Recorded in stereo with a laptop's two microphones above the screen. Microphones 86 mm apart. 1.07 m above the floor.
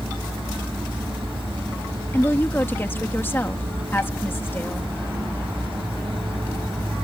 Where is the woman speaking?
25° left (ahead or behind).